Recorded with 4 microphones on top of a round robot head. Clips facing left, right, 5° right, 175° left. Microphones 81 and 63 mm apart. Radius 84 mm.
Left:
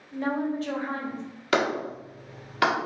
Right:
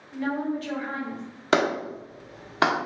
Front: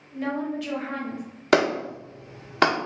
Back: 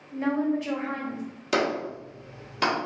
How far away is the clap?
About 1.1 m.